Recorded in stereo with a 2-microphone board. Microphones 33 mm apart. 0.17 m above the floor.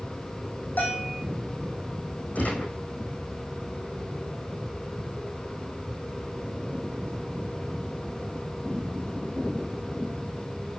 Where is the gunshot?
60° left (ahead or behind), 5.5 m.